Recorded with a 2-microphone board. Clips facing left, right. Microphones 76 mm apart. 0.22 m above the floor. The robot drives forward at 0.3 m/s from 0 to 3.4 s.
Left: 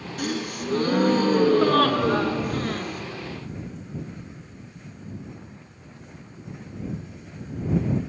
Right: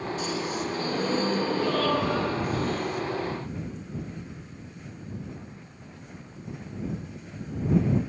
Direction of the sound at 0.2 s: 65° left (ahead or behind).